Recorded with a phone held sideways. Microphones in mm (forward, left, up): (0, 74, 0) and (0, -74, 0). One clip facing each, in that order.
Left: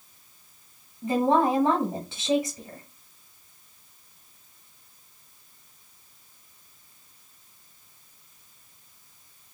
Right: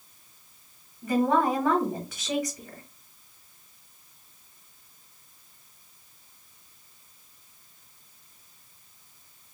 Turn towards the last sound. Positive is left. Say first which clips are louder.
# left 1 dB
turn(degrees=25)  # may be behind; listen again after turning